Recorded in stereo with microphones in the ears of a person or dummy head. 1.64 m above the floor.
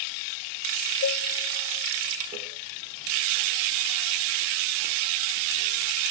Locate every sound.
1.0 s a cowbell: 70° left (ahead or behind), 0.6 m